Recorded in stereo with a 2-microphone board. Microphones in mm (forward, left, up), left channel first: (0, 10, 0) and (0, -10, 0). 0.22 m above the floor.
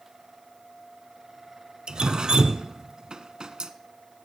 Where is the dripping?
50° right (ahead or behind), 0.6 m.